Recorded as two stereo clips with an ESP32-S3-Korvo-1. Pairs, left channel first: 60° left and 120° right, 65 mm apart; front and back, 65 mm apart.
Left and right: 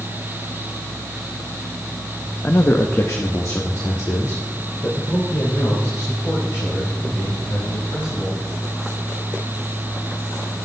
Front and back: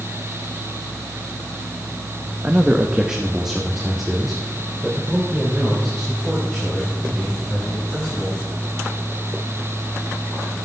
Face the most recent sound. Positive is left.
turn(degrees=85)